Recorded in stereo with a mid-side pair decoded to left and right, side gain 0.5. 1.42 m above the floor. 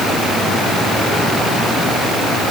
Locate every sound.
Only background noise.